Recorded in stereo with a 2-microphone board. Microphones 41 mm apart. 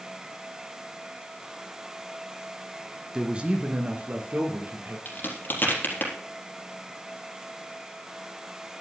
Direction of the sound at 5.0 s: 55° left (ahead or behind).